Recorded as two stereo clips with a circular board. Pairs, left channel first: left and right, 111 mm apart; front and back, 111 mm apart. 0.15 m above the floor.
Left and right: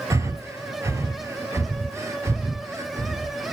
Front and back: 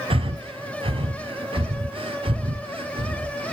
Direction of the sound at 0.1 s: 150° right.